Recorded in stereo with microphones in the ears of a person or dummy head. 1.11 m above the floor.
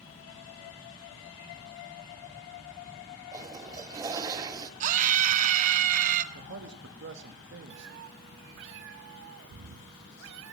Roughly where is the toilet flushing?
Right.